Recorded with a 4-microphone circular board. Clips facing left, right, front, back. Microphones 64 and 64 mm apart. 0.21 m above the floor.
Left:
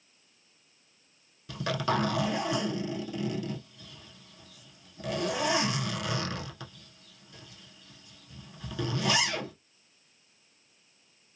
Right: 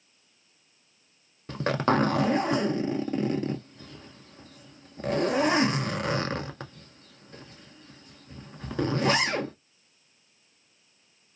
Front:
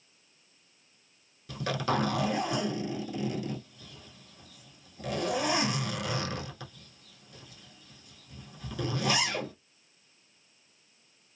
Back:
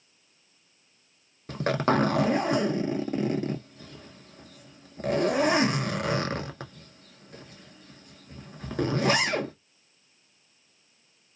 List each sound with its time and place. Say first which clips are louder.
1.5 s a zipper: right 5 dB, back 6 dB; 140° right, 0.6 m